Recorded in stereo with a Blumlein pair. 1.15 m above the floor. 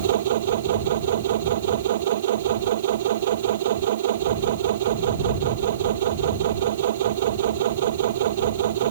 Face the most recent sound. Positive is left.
turn(degrees=-60)